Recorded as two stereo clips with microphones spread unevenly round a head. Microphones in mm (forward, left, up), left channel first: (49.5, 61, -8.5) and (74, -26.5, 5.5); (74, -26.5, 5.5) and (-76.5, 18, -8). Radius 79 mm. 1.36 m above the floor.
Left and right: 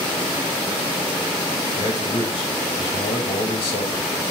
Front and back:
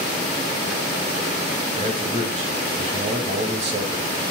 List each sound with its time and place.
1.8 s a man speaking: 110° left, 2 m